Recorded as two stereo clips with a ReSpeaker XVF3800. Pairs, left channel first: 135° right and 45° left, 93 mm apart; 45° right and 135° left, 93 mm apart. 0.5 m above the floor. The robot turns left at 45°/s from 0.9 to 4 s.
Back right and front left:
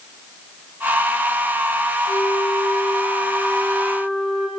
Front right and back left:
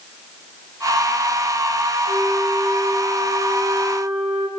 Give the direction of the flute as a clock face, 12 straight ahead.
4 o'clock.